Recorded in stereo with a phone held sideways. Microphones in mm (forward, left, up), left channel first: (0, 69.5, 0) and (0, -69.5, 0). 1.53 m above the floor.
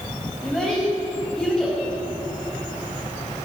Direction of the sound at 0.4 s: Centre (ahead or behind).